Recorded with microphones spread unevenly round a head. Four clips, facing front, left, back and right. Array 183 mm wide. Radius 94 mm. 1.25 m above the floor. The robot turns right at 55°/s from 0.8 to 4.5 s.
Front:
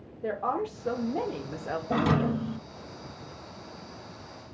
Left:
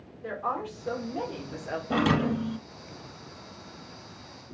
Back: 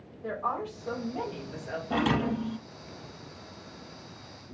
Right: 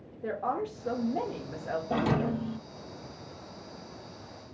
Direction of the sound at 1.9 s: 60° left.